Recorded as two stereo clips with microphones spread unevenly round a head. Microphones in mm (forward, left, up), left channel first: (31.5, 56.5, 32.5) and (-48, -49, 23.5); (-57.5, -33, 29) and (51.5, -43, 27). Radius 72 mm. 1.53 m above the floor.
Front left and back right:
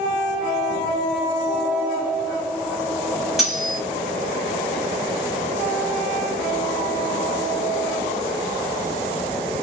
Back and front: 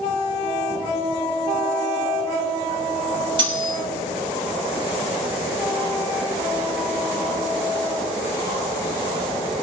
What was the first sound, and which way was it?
Cutlery clinking, 35° right.